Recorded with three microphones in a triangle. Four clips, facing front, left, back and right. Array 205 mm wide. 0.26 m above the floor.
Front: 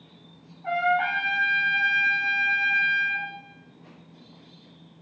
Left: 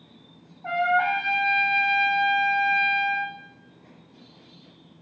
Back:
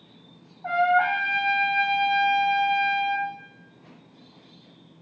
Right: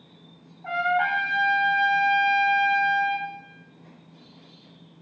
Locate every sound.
0.6 s a trumpet: 170° left, 2.0 m